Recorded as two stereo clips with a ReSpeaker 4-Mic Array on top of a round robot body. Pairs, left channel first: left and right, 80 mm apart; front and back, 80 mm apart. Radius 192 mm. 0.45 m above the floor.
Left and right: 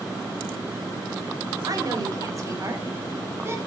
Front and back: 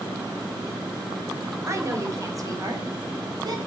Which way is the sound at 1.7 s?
130° right.